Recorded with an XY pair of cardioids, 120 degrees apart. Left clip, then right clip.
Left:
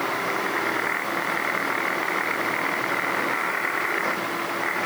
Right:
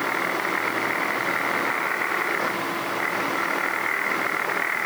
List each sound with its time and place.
Only background noise.